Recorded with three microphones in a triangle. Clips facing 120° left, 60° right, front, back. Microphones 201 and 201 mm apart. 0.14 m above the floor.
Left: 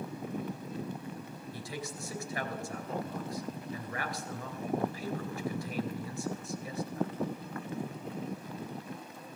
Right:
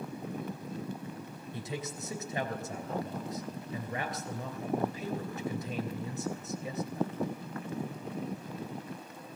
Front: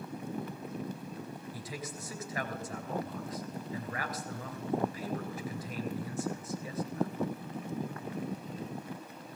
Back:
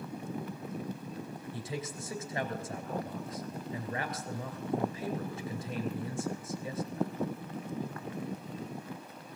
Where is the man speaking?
120° right, 2.5 m.